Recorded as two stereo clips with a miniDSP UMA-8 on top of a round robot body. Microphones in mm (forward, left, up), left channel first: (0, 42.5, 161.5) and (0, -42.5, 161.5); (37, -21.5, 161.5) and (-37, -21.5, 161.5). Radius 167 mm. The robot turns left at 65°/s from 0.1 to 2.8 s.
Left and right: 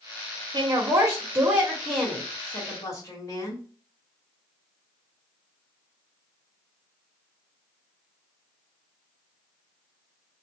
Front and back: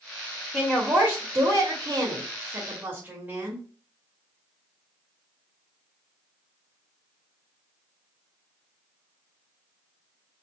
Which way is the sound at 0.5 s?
90° right.